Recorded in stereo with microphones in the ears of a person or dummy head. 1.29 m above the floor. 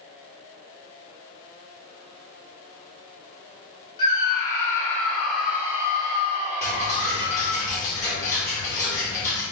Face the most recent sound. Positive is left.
turn(degrees=15)  # may be behind; listen again after turning